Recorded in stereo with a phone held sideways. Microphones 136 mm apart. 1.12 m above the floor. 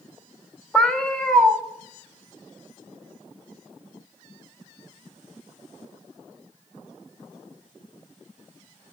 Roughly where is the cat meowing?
Centre.